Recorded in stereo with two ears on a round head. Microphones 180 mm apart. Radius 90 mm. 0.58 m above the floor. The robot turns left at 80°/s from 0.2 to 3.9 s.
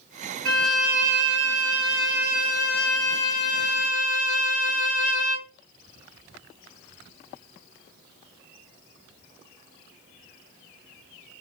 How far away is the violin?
About 1.8 m.